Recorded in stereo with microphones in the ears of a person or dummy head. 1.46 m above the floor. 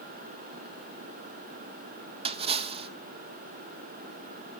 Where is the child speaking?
No child speaking in this recording.